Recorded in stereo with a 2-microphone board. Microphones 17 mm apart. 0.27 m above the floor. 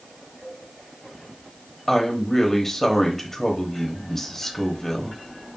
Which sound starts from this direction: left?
A woman speaking, at 1.9 s.